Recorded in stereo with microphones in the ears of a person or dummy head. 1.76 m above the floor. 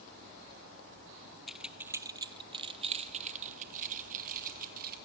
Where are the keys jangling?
Centre (ahead or behind), 0.9 m; by 5.0 s 55° right (ahead or behind), 2 m.